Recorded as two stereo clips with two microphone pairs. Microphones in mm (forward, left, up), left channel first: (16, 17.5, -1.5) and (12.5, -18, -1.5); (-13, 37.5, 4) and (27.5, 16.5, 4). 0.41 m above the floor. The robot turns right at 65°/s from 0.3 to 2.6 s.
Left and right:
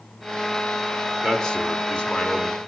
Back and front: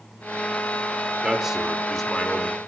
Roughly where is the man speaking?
Ahead.